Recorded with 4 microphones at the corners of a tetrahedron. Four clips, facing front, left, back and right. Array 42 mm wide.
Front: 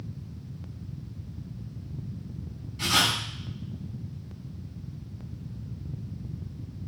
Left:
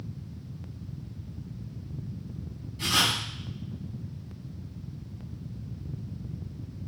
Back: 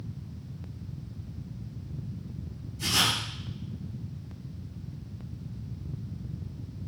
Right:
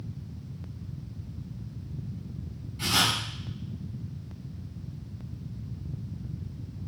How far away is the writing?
About 4 m.